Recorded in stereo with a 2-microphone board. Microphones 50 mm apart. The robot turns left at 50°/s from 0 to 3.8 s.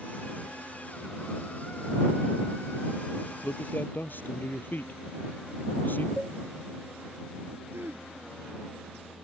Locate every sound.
3.4 s a man speaking: 55° left (ahead or behind); by 6.1 s 40° left (ahead or behind)
6.2 s a cowbell: 5° left (ahead or behind)
7.7 s throat clearing: 50° right (ahead or behind)